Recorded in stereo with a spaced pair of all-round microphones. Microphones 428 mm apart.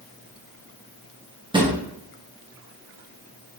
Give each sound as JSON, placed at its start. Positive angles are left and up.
{"t": 1.5, "sound": "a drawer", "side_deg": -10, "distance_m": 0.7}